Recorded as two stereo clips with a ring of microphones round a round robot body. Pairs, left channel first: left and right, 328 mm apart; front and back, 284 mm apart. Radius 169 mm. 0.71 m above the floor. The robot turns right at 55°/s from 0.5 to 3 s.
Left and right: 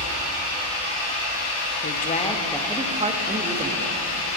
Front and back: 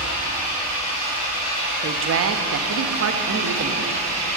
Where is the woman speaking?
140° left, 0.7 m; by 3.9 s 160° right, 0.7 m.